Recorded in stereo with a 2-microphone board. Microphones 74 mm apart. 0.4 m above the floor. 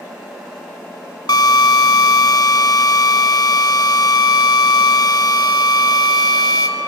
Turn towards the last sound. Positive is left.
turn(degrees=65)  # may be behind; listen again after turning